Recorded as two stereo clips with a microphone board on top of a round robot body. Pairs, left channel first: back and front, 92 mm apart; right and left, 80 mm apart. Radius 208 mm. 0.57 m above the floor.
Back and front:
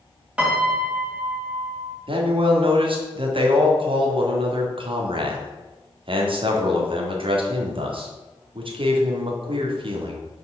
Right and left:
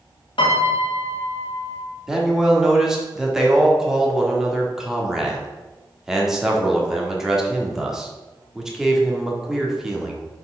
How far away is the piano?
About 1.9 m.